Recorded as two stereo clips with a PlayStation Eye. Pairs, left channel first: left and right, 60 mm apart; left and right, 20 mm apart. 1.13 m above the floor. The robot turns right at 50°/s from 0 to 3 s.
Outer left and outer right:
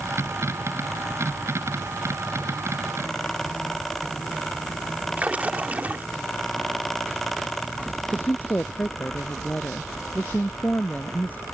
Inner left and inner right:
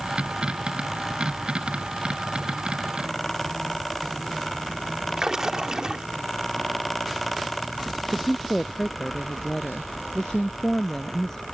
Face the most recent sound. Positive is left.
turn(degrees=30)  # may be behind; listen again after turning